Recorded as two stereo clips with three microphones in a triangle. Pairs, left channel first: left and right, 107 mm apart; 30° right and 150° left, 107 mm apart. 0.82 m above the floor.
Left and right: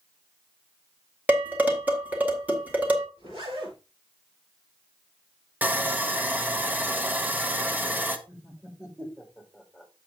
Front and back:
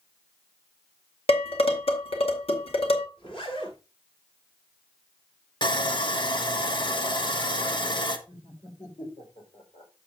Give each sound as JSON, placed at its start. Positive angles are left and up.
{"t": 1.3, "sound": "dishes clattering", "azimuth_deg": -15, "distance_m": 2.0}
{"t": 3.2, "sound": "a zipper", "azimuth_deg": -60, "distance_m": 7.0}
{"t": 5.6, "sound": "sawing", "azimuth_deg": -20, "distance_m": 1.1}
{"t": 8.3, "sound": "laughter", "azimuth_deg": -15, "distance_m": 4.0}